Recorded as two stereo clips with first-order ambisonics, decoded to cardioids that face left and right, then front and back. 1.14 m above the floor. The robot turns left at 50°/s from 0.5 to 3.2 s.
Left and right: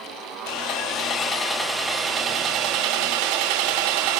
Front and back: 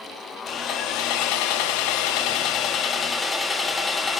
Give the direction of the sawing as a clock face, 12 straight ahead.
10 o'clock.